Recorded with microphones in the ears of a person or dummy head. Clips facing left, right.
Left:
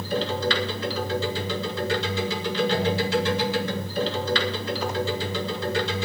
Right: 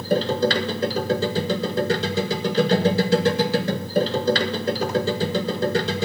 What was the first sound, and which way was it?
A machine running, 30° right (ahead or behind).